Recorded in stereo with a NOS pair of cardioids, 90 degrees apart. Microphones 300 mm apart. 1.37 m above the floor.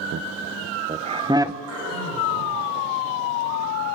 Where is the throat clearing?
55° right, 8.5 m.